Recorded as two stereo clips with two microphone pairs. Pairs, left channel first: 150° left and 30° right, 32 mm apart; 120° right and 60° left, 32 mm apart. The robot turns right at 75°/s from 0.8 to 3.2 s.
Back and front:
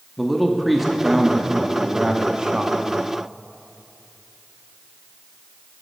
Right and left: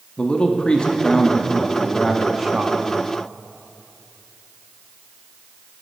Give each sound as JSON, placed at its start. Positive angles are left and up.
{"t": 0.2, "sound": "a man speaking", "azimuth_deg": -120, "distance_m": 0.8}